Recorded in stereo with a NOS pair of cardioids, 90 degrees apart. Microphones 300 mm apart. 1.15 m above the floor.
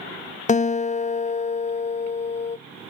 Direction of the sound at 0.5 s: 25° left.